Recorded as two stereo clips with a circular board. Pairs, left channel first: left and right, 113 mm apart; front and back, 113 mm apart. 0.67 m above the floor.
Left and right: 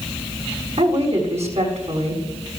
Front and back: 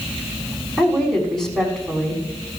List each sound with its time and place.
0.8 s a woman speaking: 85° right, 6 m